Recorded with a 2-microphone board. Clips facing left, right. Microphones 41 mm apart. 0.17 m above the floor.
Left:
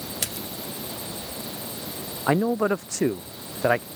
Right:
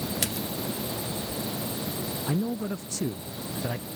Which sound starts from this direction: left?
A man speaking, at 2.3 s.